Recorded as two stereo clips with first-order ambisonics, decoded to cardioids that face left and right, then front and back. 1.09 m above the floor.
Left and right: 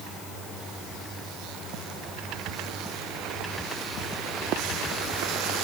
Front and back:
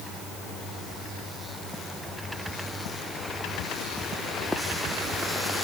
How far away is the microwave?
No microwave in this recording.